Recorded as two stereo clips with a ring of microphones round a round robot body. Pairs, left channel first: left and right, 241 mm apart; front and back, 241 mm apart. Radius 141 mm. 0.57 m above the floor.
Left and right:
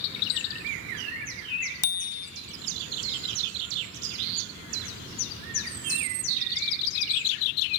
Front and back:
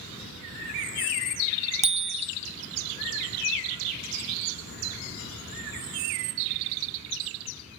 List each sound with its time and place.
1.8 s a bicycle bell: 120° left, 2.5 m